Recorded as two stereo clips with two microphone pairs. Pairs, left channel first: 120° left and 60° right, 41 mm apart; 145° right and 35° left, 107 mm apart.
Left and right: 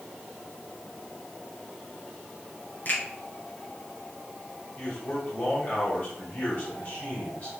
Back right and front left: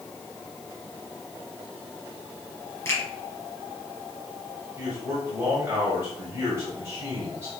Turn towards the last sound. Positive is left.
turn(degrees=95)